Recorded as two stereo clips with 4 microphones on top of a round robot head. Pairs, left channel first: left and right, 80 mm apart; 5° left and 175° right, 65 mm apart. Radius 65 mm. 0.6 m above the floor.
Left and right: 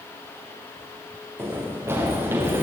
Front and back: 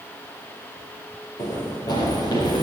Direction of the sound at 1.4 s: 30° right.